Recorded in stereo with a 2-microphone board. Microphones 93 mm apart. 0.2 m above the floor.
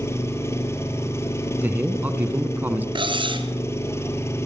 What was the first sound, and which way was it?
An engine running, 30° left (ahead or behind).